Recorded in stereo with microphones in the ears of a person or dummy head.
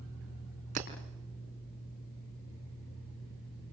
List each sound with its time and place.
0.8 s breaking glass: 50° right (ahead or behind), 5 m